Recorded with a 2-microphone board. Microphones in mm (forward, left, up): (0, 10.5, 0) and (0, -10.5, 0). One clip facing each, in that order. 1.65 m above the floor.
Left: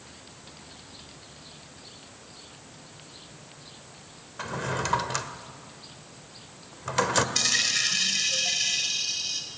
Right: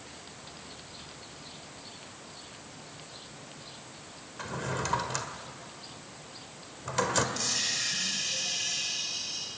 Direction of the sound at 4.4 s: 25° left (ahead or behind).